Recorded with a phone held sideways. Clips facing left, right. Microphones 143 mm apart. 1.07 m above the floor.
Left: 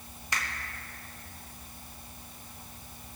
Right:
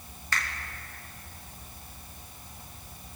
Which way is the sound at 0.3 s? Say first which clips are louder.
Right 2 dB; 15° left (ahead or behind).